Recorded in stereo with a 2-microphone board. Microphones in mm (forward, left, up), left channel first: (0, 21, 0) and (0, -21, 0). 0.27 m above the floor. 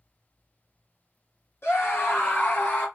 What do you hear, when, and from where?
1.6 s a scream: 70° left (ahead or behind), 2.5 m; by 2.9 s 45° left (ahead or behind), 3 m